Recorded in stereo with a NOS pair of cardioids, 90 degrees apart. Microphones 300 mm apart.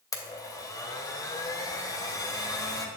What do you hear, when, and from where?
0.1 s a blender: 10° left, 2 m